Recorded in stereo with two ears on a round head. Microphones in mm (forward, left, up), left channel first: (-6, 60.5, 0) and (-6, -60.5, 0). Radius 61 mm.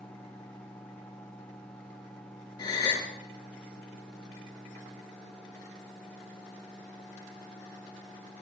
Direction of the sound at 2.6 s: 30° left (ahead or behind).